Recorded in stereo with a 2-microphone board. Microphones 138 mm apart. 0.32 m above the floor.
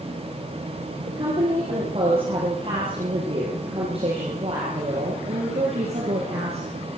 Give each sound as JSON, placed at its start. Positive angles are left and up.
{"t": 1.1, "sound": "a woman speaking", "side_deg": -40, "distance_m": 10.0}